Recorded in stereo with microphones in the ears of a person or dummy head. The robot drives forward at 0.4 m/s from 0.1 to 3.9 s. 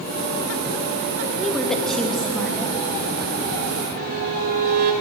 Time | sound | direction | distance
1.4 | a woman speaking | 5° left (ahead or behind) | 2.5 m
4.0 | a violin | 45° right (ahead or behind) | 2 m